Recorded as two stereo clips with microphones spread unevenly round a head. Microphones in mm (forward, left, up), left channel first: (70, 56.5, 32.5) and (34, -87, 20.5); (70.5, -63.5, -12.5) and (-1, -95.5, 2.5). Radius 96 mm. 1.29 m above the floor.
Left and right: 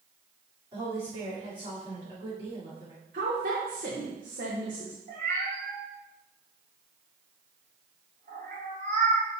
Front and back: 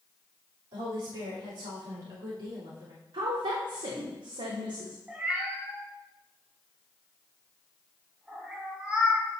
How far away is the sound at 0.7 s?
About 3.5 m.